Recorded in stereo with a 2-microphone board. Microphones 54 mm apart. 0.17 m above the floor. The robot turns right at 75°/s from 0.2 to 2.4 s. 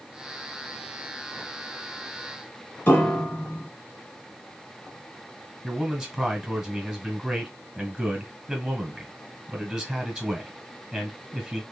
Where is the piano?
35° left (ahead or behind), 1.3 m.